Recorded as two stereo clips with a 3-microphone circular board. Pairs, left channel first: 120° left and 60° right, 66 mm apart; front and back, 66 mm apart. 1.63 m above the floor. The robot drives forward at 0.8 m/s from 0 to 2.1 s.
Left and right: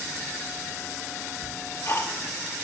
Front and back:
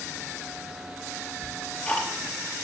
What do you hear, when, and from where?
1.4 s ticking: 70° left, 3 m; by 2.6 s 80° left, 3 m